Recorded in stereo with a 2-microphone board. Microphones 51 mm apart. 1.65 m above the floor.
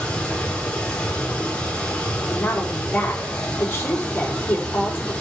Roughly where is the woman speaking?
Left.